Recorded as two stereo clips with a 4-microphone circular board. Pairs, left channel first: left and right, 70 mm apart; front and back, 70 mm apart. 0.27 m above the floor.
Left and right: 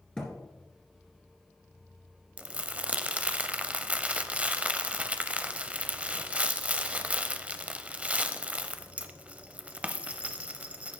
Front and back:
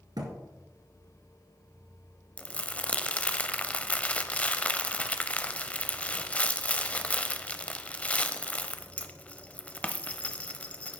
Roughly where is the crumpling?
Ahead right.